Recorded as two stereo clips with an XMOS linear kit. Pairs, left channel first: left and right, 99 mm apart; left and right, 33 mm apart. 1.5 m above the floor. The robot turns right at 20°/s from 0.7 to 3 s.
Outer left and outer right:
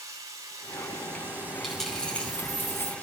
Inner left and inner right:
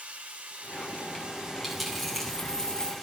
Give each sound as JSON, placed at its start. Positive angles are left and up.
{"t": 0.0, "sound": "running water", "azimuth_deg": -35, "distance_m": 4.0}
{"t": 1.6, "sound": "a dropped coin", "side_deg": 0, "distance_m": 4.5}